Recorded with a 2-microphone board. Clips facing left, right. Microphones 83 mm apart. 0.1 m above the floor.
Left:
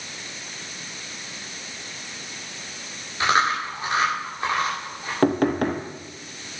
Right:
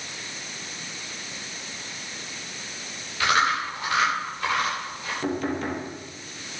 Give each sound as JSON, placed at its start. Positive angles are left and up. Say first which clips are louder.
{"t": 3.2, "sound": "chewing", "louder": "left 1 dB", "side_deg": 30, "distance_m": 9.0}
{"t": 5.2, "sound": "knocking", "louder": "left 8 dB", "side_deg": 60, "distance_m": 1.8}